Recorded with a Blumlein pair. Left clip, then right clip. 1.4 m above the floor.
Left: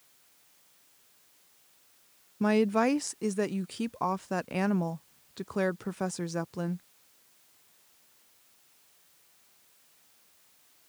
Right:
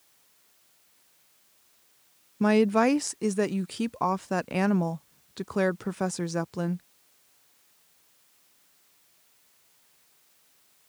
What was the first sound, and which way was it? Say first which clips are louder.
A woman speaking: right 4 dB; 10° right.